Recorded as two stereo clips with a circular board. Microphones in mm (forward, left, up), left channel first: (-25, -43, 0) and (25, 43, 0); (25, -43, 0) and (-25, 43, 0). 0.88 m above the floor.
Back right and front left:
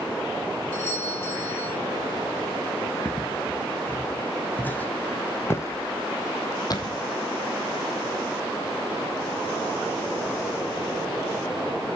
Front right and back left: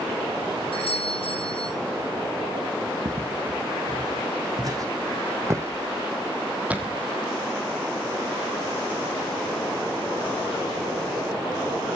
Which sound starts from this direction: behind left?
Footsteps, at 3.0 s.